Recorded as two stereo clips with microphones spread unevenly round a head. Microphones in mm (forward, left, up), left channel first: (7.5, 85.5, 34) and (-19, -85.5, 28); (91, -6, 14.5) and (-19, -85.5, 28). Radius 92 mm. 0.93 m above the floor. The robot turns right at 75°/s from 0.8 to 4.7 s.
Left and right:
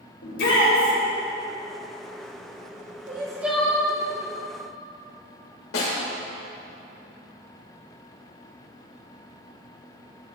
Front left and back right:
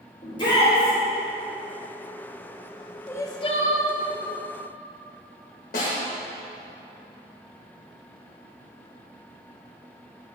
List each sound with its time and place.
0.2 s a shout: 95° left, 3.5 m; by 0.9 s 110° left, 3.5 m
3.1 s crying: 40° right, 1.1 m; by 3.9 s 20° left, 1.1 m
5.7 s a snare drum: 75° left, 2.5 m